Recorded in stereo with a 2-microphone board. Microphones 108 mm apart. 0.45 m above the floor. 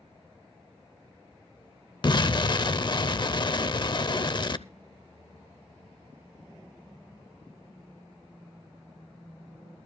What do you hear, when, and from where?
2.0 s an explosion: 45° left (ahead or behind), 0.5 m